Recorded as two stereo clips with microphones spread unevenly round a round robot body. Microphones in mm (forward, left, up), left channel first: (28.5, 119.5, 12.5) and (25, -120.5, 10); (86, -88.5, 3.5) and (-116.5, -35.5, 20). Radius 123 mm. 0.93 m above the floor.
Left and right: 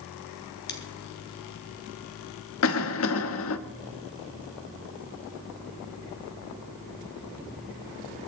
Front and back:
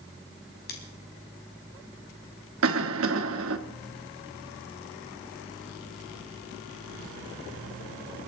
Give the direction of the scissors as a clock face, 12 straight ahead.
11 o'clock.